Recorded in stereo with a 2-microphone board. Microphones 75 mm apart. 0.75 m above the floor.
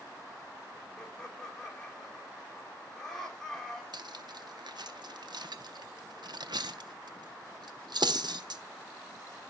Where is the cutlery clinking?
70° right (ahead or behind), 0.6 m.